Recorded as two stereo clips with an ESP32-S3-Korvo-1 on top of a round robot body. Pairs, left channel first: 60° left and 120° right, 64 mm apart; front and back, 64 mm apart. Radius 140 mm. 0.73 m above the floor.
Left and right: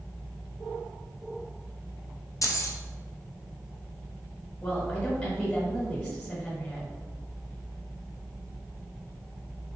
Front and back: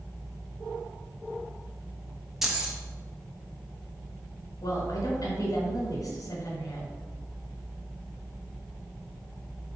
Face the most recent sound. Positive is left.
turn(degrees=-5)